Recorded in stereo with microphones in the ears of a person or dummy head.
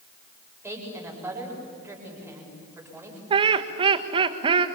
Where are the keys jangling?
I don't hear keys jangling.